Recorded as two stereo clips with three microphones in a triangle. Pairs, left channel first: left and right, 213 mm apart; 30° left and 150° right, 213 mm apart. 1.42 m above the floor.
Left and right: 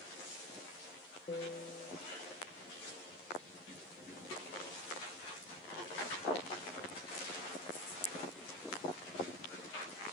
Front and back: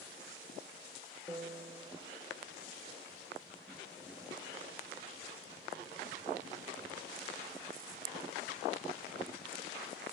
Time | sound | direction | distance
1.3 | a piano | 135° left | 0.8 m